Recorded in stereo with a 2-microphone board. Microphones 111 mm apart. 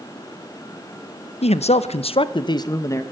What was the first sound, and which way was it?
A man speaking, 75° left (ahead or behind).